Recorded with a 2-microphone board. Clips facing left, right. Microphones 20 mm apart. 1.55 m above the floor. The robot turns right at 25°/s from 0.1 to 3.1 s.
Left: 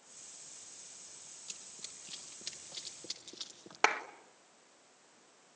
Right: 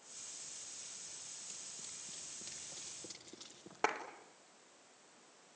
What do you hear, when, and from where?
1.5 s running footsteps: 40° left (ahead or behind), 3 m; by 3.9 s 55° left (ahead or behind), 4 m
3.8 s a clap: 75° left (ahead or behind), 1.7 m